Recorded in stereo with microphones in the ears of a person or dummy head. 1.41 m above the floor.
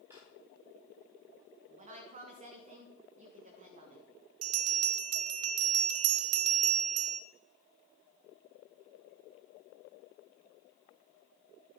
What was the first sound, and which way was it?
A drawer, 10° right (ahead or behind).